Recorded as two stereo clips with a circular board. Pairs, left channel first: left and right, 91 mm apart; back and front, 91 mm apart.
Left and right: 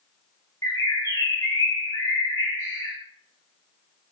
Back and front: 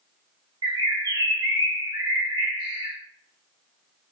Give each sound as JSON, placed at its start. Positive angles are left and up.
{"t": 0.6, "sound": "a bird", "azimuth_deg": 35, "distance_m": 1.3}